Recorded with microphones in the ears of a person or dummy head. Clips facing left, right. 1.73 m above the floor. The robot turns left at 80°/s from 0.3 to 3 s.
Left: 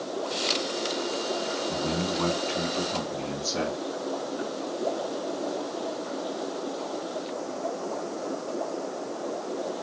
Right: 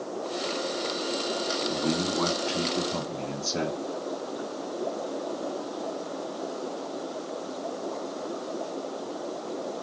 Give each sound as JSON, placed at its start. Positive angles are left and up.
{"t": 1.7, "sound": "a man speaking", "azimuth_deg": -40, "distance_m": 2.0}